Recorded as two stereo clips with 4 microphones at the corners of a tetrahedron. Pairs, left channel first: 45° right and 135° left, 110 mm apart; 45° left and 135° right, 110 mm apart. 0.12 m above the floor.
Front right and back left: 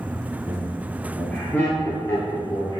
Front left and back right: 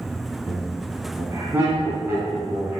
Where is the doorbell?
No doorbell in this recording.